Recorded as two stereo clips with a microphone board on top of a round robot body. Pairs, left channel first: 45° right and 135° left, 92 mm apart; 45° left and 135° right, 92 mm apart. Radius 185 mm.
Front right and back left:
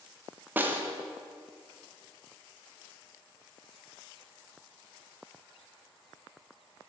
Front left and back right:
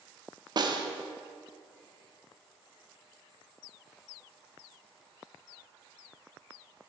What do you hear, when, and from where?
0.6 s a snare drum: 160° right, 0.8 m